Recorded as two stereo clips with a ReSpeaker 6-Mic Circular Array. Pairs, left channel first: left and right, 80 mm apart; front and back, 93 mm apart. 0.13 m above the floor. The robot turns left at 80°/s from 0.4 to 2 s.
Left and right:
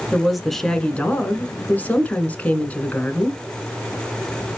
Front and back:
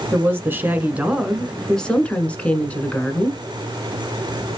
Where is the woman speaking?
Straight behind, 1.1 m; by 3.4 s 50° left, 1.1 m.